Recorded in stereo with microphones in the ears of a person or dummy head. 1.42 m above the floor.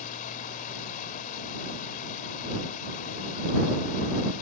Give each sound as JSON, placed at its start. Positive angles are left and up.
{"t": 0.0, "sound": "running water", "side_deg": 50}